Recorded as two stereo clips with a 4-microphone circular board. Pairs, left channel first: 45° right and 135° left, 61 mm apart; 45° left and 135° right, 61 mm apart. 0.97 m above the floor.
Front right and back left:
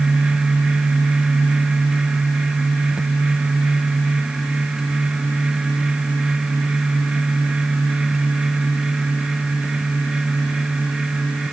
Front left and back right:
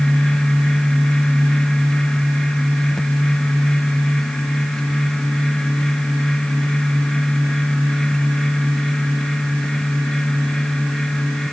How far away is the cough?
No cough in this recording.